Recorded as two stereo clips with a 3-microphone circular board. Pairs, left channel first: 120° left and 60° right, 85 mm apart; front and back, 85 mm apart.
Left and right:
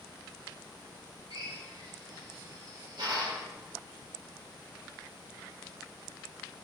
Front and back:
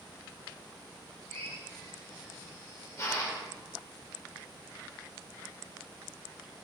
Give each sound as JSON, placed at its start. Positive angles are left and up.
{"t": 1.3, "sound": "a drill", "azimuth_deg": -50, "distance_m": 3.5}